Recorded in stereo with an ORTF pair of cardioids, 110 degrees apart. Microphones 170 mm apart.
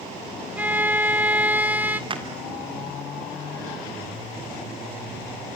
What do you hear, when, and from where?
0.6 s a violin: 10° right, 1.5 m
2.1 s a clap: 30° right, 3.5 m